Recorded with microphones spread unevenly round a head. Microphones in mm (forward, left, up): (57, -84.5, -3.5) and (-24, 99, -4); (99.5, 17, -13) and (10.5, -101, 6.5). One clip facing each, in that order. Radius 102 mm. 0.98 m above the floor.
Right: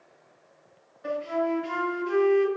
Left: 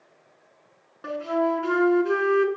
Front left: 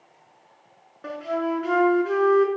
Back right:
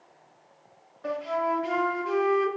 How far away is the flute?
About 3.5 m.